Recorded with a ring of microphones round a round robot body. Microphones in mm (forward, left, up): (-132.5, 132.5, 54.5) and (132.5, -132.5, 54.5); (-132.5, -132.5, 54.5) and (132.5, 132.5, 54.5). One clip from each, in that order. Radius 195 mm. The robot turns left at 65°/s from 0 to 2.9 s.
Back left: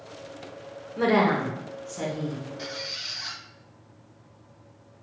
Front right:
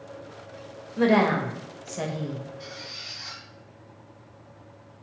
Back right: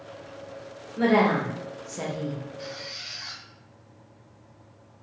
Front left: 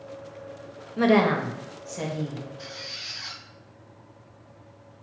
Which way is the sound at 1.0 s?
30° left.